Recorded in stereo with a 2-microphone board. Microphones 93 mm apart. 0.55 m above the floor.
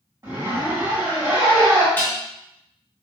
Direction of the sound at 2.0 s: 20° left (ahead or behind).